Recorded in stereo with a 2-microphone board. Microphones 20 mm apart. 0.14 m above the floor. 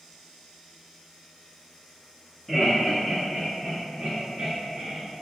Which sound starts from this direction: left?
Laughter, at 2.5 s.